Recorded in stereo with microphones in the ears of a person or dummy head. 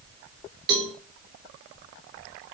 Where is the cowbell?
60° right (ahead or behind), 1.7 m.